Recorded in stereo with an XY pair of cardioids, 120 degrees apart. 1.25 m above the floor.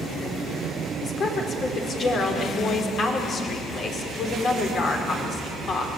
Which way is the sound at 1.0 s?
45° left.